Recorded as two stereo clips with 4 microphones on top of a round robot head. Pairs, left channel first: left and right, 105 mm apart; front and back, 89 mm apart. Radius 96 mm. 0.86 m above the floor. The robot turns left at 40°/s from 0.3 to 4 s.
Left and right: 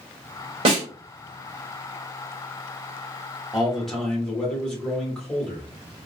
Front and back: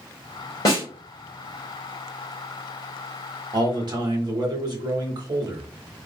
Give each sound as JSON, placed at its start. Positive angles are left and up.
{"t": 0.7, "sound": "a snare drum", "azimuth_deg": -60, "distance_m": 1.7}
{"t": 3.5, "sound": "a man speaking", "azimuth_deg": -170, "distance_m": 1.2}